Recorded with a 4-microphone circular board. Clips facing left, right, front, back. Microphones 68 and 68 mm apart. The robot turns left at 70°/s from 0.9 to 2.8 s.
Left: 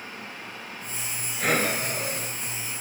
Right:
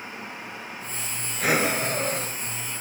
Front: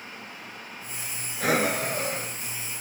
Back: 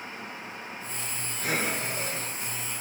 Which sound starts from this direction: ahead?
Breathing, at 1.4 s.